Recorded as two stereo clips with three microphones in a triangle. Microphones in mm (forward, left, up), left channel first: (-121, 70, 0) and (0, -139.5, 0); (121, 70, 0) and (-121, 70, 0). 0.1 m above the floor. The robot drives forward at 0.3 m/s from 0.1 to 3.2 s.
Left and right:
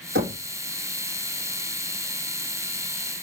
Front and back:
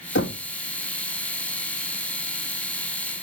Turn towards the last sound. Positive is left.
turn(degrees=-40)